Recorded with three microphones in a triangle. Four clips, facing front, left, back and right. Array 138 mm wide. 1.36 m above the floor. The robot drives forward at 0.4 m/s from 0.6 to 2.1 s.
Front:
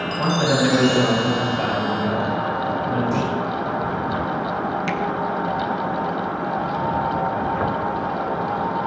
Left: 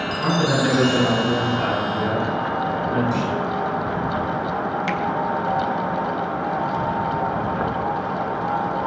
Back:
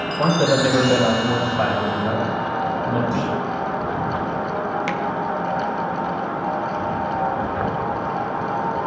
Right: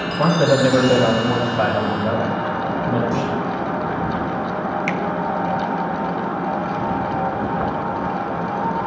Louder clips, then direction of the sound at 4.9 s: Right 1 dB, even; 170° right.